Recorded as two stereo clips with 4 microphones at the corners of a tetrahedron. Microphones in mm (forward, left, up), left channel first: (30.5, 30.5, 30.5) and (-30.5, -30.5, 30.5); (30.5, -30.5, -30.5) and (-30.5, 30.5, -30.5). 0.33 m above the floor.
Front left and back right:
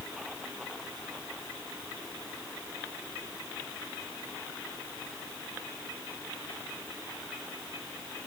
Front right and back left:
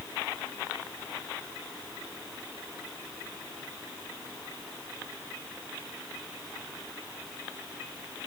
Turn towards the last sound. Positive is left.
No sound to turn to.